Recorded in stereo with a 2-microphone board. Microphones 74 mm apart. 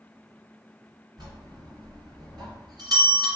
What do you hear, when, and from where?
1.2 s a bell: 65° right (ahead or behind), 1.8 m